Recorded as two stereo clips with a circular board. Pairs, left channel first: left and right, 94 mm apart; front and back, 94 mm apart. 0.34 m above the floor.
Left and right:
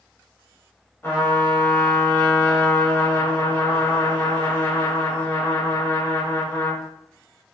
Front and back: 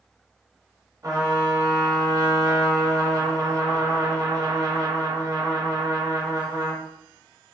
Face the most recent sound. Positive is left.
turn(degrees=145)